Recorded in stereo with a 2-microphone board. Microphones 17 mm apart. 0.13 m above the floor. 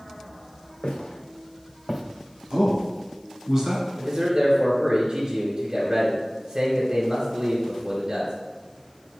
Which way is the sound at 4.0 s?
25° right (ahead or behind).